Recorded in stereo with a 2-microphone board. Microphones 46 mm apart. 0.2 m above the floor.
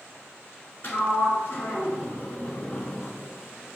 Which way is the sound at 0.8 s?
55° left (ahead or behind).